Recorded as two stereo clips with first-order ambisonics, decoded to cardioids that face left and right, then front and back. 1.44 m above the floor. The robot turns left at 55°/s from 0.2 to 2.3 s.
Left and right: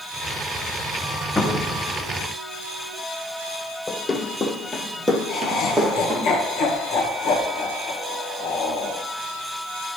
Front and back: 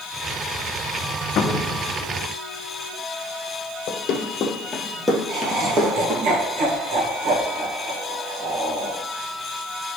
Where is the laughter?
140° left, 1.7 m.